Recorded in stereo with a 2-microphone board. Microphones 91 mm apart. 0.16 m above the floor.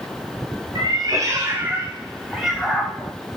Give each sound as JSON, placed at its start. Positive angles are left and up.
{"t": 0.8, "sound": "a cat meowing", "side_deg": -50, "distance_m": 1.6}